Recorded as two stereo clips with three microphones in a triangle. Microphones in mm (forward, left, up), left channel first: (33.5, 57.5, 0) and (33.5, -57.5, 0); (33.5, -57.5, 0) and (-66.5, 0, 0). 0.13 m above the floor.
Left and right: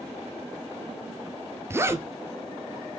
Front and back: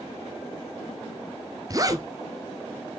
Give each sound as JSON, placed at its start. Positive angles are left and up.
{"t": 1.7, "sound": "a zipper", "azimuth_deg": -155, "distance_m": 0.9}